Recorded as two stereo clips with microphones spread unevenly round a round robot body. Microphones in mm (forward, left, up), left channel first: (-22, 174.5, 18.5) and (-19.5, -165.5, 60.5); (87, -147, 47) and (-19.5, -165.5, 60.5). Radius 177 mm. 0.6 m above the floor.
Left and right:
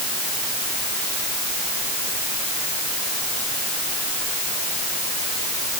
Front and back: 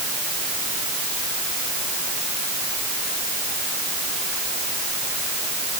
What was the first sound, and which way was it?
Only background noise.